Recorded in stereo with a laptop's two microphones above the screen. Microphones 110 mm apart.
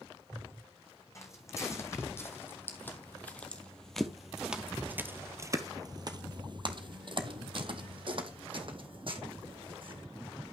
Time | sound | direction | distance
1.1 | footsteps | 30° left (ahead or behind) | 2.5 m